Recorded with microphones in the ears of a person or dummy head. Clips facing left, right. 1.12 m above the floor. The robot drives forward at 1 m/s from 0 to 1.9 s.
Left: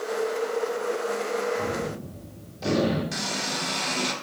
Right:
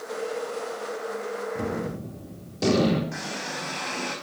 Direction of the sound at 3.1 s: 55° left (ahead or behind).